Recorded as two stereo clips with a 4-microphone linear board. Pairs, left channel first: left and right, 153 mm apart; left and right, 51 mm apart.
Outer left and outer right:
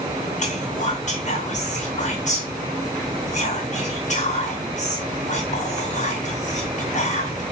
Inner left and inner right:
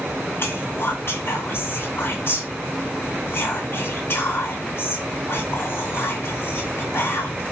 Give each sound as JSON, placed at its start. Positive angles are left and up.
{"t": 0.4, "sound": "whispering", "side_deg": 50, "distance_m": 1.8}